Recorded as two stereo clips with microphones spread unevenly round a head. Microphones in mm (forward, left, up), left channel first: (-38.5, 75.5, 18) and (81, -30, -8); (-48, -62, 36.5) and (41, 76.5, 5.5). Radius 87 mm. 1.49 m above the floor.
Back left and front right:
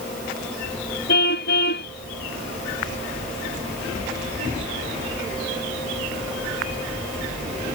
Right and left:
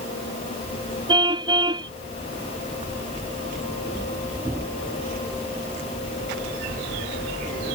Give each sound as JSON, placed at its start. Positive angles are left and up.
{"t": 1.1, "sound": "a car horn", "azimuth_deg": 125}